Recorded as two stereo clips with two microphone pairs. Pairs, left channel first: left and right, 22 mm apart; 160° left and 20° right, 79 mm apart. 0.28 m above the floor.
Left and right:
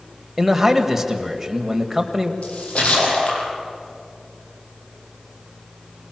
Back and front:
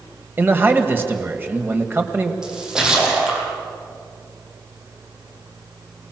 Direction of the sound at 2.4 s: 65° left.